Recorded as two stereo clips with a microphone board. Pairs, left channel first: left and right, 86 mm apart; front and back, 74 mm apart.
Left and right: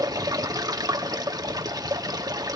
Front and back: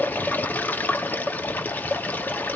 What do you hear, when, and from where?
0.0 s running water: 60° right, 1.1 m